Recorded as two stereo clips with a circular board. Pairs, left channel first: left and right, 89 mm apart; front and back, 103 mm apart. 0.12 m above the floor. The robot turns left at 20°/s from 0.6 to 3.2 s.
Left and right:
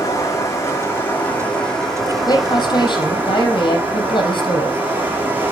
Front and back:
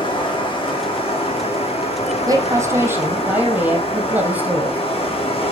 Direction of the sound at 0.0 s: 35° left.